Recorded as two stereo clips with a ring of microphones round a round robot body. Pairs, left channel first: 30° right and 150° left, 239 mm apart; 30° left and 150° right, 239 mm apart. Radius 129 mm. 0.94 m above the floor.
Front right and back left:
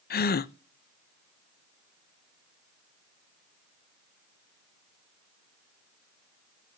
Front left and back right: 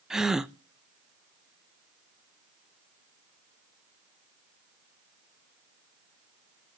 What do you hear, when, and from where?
0.1 s a gasp: 65° right, 0.6 m